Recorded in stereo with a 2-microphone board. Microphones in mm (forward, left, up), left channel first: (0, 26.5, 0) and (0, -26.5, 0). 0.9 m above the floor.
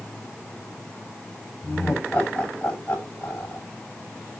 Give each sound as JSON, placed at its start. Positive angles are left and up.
{"t": 1.6, "sound": "laughter", "side_deg": 20, "distance_m": 6.0}